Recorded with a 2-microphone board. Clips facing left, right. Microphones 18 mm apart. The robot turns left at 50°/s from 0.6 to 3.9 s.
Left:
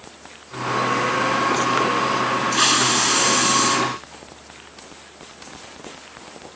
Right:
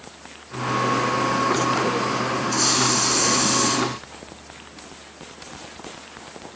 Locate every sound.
2.5 s a hiss: 80° left, 3.5 m; by 3.8 s 20° left, 3.5 m